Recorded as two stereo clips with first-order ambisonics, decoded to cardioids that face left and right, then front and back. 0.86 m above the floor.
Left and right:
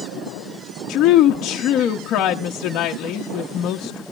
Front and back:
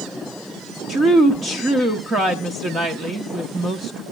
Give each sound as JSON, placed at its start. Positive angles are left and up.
{"t": 0.9, "sound": "a woman speaking", "azimuth_deg": 115, "distance_m": 0.8}